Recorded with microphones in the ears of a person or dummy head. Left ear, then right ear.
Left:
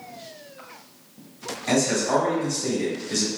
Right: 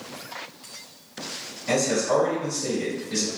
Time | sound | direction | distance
1.7 | a man speaking | 55° left (ahead or behind) | 1.7 m